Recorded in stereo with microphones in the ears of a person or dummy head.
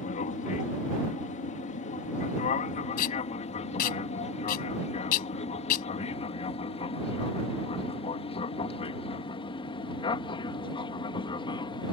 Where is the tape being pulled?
50° left (ahead or behind).